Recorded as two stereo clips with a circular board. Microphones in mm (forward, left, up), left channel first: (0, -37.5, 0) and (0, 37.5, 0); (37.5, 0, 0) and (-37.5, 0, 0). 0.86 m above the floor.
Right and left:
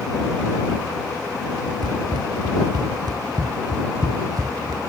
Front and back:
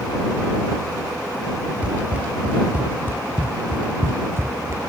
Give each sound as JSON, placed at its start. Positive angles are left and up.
{"t": 1.8, "sound": "running footsteps", "azimuth_deg": 105}